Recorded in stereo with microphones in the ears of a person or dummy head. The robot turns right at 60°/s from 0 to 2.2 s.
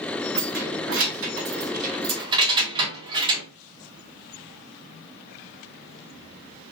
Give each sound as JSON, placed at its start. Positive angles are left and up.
{"t": 0.3, "sound": "keys jangling", "side_deg": -40, "distance_m": 2.0}